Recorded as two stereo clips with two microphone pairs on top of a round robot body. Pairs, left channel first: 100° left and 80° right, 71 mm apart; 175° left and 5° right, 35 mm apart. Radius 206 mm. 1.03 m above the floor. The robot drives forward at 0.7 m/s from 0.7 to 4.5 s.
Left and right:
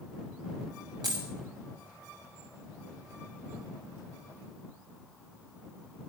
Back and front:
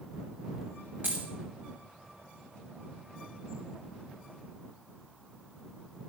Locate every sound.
1.0 s a dropped coin: 50° right, 0.9 m; by 1.2 s 75° right, 0.9 m